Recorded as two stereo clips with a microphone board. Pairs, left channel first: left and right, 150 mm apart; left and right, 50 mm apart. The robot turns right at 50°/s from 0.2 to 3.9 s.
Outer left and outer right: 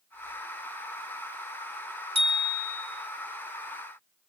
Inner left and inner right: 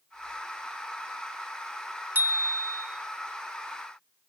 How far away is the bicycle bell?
About 3.5 m.